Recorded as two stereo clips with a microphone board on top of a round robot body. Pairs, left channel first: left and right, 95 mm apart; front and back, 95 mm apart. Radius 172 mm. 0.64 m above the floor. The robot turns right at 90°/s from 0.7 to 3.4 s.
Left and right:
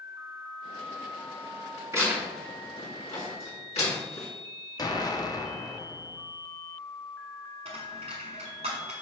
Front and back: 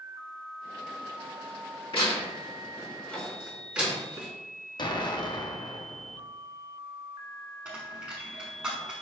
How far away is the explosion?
About 0.8 m.